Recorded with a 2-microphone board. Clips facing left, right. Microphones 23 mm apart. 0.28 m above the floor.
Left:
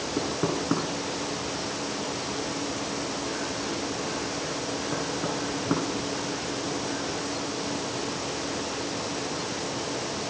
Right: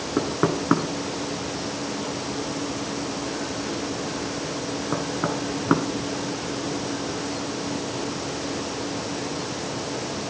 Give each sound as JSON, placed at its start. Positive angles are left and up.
{"t": 0.2, "sound": "knocking", "side_deg": -55, "distance_m": 2.5}